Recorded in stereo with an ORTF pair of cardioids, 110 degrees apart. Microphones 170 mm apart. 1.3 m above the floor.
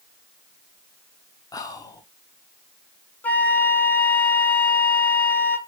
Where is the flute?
10° left, 0.6 m.